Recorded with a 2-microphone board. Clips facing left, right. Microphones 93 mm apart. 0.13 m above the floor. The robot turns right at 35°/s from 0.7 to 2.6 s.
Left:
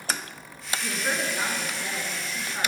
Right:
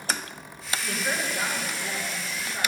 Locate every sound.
0.8 s a woman speaking: 20° left (ahead or behind), 1.5 m; by 2.7 s 25° left (ahead or behind), 1.5 m